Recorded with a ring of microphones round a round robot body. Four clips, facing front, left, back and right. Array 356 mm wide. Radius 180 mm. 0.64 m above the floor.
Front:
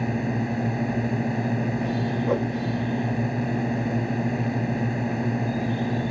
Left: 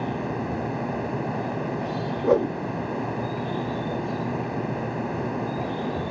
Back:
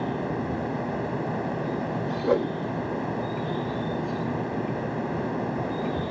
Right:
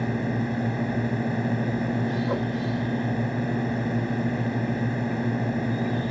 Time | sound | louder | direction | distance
0.0 | a drone | right 1 dB, front 2 dB | 40° right | ?
2.2 | a whoosh | left 7 dB, back 4 dB | 110° left | ?